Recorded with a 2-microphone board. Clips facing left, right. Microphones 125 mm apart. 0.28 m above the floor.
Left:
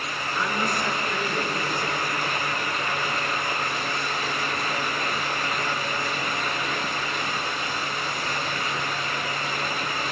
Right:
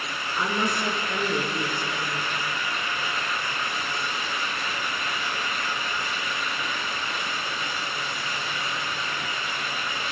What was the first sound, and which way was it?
A woman speaking, 20° right (ahead or behind).